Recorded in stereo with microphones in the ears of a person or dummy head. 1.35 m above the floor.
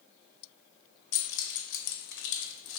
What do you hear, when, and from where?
1.1 s keys jangling: 70° left (ahead or behind), 0.7 m